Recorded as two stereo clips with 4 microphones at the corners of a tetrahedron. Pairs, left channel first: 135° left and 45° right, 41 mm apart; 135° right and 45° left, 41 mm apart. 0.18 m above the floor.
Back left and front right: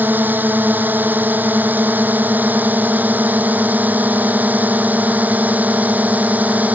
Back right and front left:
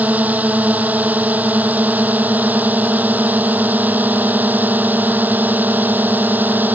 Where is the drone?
Straight ahead; by 6.8 s 10° left.